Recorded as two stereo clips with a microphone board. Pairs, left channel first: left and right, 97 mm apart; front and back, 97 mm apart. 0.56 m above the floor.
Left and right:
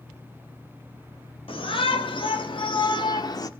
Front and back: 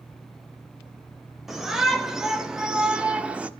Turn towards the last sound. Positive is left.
turn(degrees=110)